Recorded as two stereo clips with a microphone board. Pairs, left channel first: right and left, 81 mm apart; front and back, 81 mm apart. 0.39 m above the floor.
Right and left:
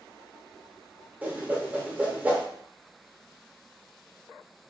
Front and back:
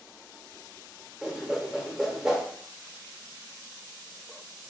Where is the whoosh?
110° left, 0.8 m.